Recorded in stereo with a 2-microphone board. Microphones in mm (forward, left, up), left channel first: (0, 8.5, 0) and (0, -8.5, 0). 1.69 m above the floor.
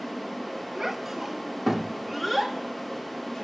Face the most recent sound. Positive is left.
turn(degrees=25)  # may be behind; listen again after turning